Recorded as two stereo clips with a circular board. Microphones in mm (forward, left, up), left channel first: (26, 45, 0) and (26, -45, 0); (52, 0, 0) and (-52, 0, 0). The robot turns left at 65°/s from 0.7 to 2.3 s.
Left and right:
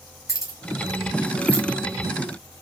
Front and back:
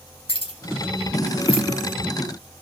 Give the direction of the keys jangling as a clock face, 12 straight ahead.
11 o'clock.